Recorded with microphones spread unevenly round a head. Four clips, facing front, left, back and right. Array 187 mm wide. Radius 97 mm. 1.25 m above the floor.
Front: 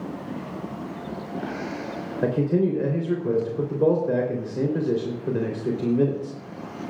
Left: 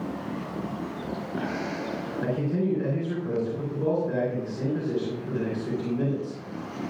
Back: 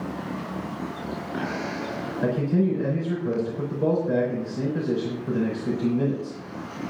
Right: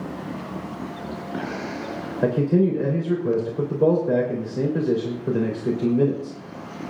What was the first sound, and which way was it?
A man speaking, 55° right.